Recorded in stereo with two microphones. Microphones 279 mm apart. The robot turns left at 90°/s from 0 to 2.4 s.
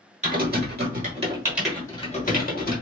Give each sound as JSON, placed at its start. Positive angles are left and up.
{"t": 0.2, "sound": "typing on a keyboard", "side_deg": -25, "distance_m": 0.9}